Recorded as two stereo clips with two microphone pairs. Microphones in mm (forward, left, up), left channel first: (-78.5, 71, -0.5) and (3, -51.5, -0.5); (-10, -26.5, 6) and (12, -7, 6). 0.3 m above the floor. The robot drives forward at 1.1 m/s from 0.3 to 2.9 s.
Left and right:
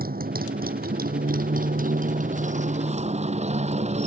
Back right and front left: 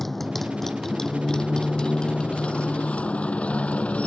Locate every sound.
0.0 s a motorcycle: 55° right; by 4.1 s 100° right